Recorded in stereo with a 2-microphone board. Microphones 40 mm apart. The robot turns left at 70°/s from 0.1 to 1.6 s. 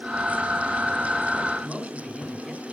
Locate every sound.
1.6 s a man speaking: centre (ahead or behind), 1.4 m